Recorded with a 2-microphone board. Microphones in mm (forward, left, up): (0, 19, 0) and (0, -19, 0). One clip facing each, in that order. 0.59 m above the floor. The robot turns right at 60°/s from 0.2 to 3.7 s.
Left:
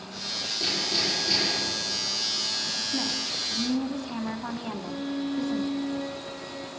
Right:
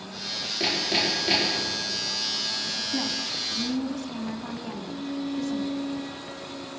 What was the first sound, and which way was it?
Hammering, 80° right.